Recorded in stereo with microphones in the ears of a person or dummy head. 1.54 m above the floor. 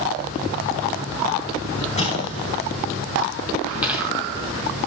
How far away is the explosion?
About 6 m.